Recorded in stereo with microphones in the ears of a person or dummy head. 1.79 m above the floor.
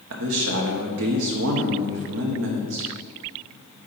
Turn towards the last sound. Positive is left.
turn(degrees=-70)  # may be behind; listen again after turning